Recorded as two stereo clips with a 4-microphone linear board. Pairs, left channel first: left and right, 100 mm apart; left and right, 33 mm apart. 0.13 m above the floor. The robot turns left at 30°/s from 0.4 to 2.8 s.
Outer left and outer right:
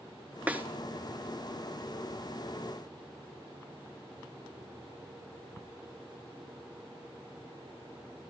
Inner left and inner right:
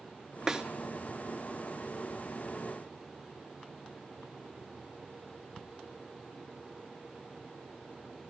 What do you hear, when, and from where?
0.5 s a snare drum: 15° right (ahead or behind), 1.5 m; by 0.7 s 20° right (ahead or behind), 1.5 m